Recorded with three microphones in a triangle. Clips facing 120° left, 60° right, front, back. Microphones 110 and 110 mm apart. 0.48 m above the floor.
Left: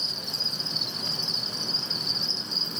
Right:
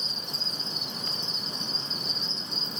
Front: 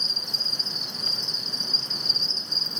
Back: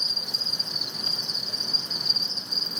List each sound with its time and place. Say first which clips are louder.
0.0 s an insect: left 1 dB, even; 100° left, 1.0 m